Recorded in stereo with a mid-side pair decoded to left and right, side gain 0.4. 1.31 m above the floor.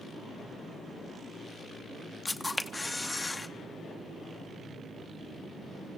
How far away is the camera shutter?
About 1.0 m.